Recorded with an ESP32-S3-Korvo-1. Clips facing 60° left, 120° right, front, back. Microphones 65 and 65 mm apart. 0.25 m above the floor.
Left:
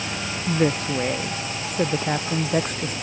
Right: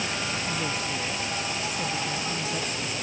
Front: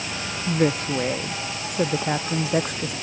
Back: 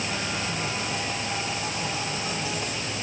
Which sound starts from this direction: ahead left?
A woman speaking, at 0.5 s.